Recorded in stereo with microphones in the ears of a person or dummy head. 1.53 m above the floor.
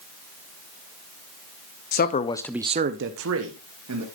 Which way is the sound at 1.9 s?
45° left (ahead or behind).